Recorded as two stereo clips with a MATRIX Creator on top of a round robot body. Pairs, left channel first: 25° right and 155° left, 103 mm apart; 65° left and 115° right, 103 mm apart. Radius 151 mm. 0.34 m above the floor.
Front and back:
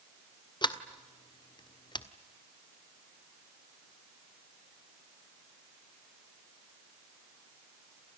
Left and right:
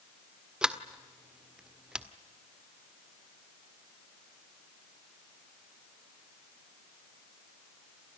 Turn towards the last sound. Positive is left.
turn(degrees=-35)